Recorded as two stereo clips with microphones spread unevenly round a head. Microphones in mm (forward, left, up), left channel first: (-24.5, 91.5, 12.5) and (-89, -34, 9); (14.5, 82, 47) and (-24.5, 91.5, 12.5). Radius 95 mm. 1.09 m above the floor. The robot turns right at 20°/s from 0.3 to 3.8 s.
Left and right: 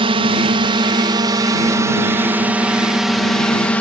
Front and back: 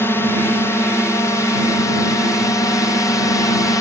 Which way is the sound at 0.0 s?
85° right.